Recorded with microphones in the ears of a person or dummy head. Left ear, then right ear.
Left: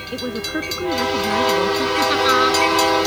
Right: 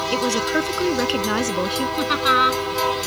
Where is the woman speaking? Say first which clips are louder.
Right 3 dB; 70° right (ahead or behind).